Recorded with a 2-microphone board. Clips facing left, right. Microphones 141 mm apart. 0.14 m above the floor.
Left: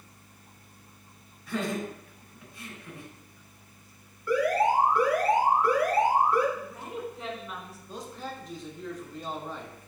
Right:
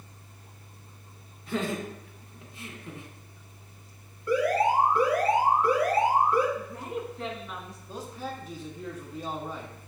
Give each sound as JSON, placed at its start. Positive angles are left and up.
{"t": 1.5, "sound": "laughter", "side_deg": -25, "distance_m": 1.2}
{"t": 4.3, "sound": "an alarm", "side_deg": -30, "distance_m": 1.9}
{"t": 6.6, "sound": "a woman speaking", "side_deg": 0, "distance_m": 1.0}
{"t": 7.9, "sound": "a man speaking", "side_deg": -5, "distance_m": 1.0}